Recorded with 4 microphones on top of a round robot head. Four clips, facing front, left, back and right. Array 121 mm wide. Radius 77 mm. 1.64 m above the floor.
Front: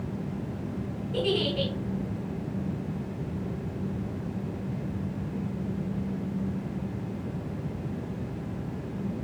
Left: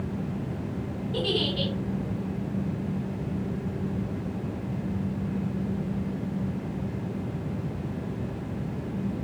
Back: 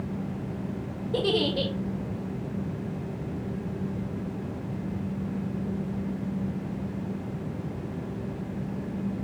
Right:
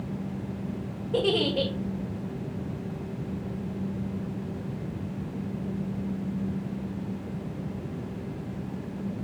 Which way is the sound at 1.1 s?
130° right.